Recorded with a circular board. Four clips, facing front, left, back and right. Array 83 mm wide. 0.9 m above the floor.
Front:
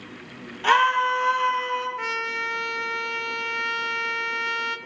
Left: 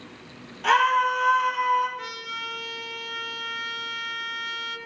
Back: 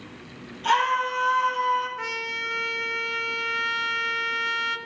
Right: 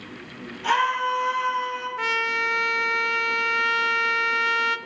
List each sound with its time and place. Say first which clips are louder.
0.6 s a scream: left 2 dB, front 3 dB; 20° left, 3 m; by 1.9 s 10° left, 4 m
2.0 s a trumpet: right 10 dB, front 3 dB; 80° right, 0.6 m